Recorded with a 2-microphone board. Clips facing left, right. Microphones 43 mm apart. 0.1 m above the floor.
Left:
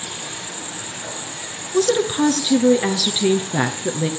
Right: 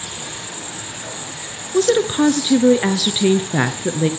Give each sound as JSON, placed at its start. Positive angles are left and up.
{"t": 0.0, "sound": "an insect", "side_deg": 0, "distance_m": 8.0}
{"t": 1.7, "sound": "a woman speaking", "side_deg": -15, "distance_m": 1.2}